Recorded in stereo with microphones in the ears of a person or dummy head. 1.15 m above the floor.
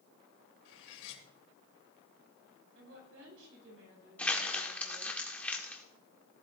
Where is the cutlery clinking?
70° left (ahead or behind), 2.5 m.